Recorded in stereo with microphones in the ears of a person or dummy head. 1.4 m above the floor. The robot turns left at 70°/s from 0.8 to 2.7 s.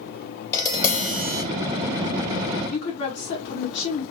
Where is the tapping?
20° left, 2.0 m; by 1.4 s 25° right, 2.0 m.